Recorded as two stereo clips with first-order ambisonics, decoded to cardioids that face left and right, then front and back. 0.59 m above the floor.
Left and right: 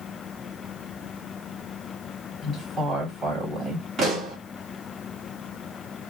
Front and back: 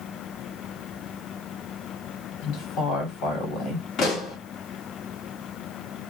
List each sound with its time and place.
2.4 s a woman speaking: 15° right, 1.8 m
4.0 s a pop: 40° right, 1.4 m